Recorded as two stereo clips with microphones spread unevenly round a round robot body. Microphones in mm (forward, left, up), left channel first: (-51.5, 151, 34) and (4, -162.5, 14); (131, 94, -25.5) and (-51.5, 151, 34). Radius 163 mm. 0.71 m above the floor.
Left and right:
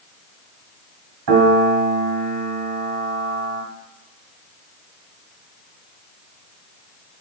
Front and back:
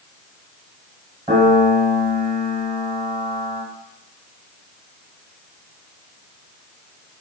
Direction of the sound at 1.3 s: 120° right.